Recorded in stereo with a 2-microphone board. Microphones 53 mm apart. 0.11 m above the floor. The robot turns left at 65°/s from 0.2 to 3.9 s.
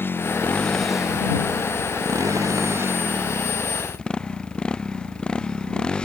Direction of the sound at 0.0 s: 40° left.